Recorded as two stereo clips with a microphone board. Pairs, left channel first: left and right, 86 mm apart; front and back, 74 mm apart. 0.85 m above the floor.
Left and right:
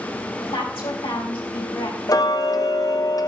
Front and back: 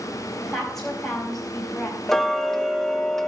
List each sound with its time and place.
0.4 s a woman speaking: 85° left, 4 m
2.1 s ticking: 85° left, 0.8 m